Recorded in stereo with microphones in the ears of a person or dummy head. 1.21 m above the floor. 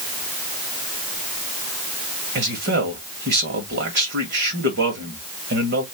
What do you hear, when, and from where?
2.4 s a man speaking: 55° right (ahead or behind), 2 m